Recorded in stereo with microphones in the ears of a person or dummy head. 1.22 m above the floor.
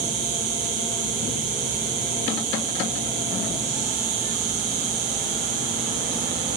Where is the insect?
65° right (ahead or behind), 1.4 m.